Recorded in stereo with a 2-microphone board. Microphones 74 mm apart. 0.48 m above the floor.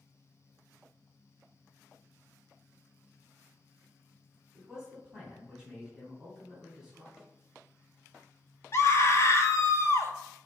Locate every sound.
4.5 s a man speaking: 10° right (ahead or behind), 3.5 m
7.2 s a snare drum: centre (ahead or behind), 1.1 m
8.7 s a scream: 40° left (ahead or behind), 1.2 m